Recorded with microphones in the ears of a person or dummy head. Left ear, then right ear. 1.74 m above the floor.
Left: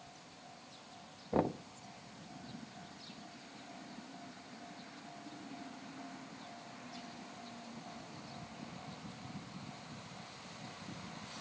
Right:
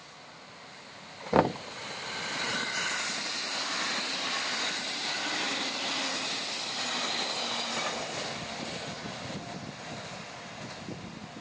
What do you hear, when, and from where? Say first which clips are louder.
1.3 s knocking: right 10 dB; 55° right (ahead or behind)